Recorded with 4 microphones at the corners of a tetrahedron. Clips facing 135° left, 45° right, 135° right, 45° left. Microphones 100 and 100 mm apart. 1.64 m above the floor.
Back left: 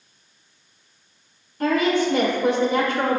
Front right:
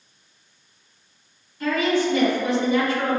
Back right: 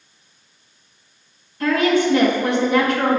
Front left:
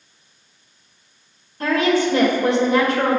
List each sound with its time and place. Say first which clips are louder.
1.6 s a woman speaking: back left 2 dB, back right 1 dB; 100° left, 1.6 m